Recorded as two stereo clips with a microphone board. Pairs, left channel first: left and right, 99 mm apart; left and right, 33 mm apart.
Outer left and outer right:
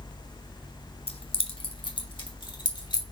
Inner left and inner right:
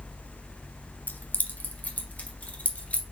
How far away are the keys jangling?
About 1.0 m.